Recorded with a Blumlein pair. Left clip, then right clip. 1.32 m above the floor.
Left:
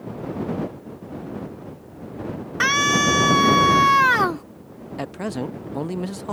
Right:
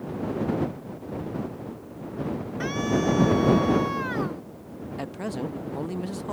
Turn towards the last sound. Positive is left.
turn(degrees=15)